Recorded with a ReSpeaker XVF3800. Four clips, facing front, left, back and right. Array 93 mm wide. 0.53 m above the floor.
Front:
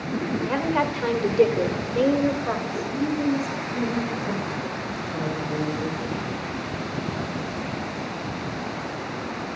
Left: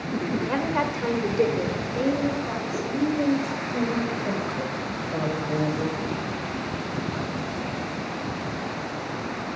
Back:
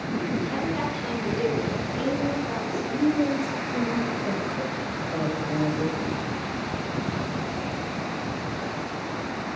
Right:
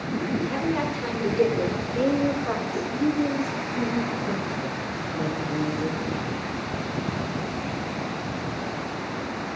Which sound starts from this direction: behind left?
A woman speaking, at 2.6 s.